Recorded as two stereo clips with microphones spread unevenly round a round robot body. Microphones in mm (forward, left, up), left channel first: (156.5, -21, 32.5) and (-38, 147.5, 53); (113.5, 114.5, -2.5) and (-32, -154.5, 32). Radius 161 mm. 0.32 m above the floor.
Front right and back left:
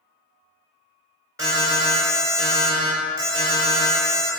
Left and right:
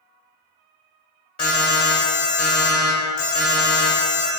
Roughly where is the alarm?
Left.